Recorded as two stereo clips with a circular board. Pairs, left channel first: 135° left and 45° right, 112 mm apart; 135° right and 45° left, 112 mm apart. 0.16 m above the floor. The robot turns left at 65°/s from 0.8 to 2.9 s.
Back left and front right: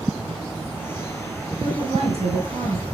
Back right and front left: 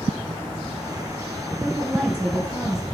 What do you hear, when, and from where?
1.6 s a woman speaking: straight ahead, 2.5 m; by 2.8 s 80° right, 2.5 m